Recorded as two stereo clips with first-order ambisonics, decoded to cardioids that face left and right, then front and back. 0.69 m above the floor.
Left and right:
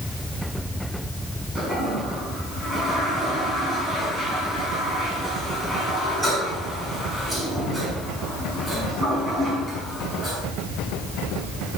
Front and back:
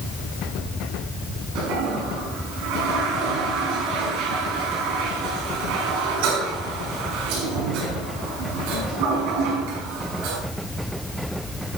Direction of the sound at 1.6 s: 170° right.